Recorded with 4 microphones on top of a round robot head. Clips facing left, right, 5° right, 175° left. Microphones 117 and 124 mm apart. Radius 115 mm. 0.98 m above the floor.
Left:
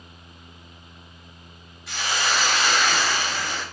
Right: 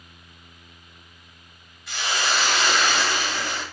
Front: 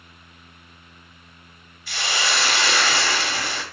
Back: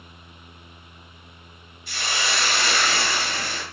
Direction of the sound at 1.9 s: Straight ahead.